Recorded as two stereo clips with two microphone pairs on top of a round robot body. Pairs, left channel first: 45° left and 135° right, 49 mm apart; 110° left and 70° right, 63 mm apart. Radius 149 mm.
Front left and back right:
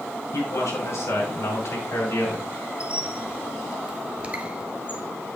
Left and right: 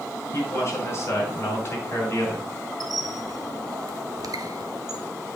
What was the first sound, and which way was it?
A man speaking, 60° left.